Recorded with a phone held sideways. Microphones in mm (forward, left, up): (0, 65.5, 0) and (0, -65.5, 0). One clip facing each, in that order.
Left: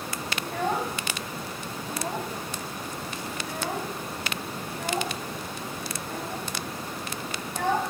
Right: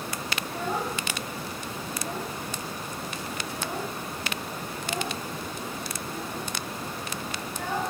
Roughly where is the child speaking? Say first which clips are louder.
Left 3 dB; left.